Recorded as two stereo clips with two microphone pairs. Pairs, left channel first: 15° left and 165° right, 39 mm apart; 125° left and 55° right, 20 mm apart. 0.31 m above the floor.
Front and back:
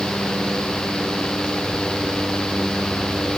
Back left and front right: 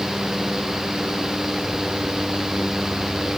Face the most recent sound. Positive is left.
No sound to turn to.